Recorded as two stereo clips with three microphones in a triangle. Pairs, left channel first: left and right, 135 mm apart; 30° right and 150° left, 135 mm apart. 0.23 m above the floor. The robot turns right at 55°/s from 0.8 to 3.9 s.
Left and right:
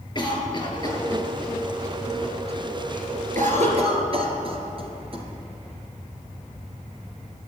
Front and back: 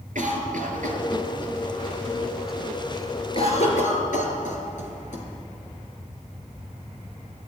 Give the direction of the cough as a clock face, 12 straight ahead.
7 o'clock.